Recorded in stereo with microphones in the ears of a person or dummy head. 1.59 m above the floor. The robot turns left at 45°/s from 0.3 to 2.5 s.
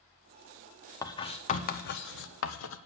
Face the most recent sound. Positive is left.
turn(degrees=85)